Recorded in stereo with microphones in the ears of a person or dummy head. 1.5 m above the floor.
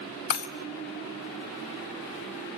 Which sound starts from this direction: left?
Breaking glass, at 0.3 s.